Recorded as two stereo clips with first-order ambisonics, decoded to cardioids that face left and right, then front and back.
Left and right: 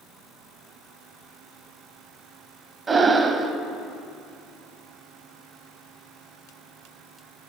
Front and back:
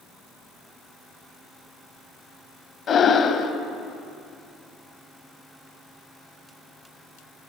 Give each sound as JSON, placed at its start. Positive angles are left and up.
{"t": 2.9, "sound": "breathing", "azimuth_deg": -35, "distance_m": 0.6}